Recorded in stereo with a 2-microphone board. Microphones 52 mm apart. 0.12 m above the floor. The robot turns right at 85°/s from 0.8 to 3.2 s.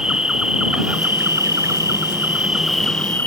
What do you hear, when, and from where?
0.0 s an insect: 160° right; by 3.3 s 40° left